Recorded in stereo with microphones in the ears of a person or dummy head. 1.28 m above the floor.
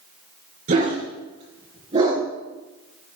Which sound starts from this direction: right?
A dog barking, at 0.7 s.